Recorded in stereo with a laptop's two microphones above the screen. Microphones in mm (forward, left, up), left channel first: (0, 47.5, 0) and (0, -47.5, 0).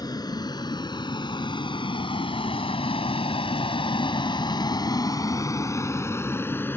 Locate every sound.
0.0 s a vehicle: 45° left (ahead or behind); by 6.8 s 25° left (ahead or behind)